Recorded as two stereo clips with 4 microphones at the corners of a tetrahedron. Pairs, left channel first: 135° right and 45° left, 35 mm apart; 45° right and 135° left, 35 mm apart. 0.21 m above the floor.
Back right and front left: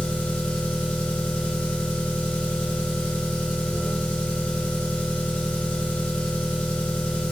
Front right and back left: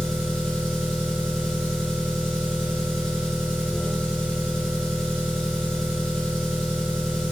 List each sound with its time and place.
0.0 s an engine running: 115° right, 2.5 m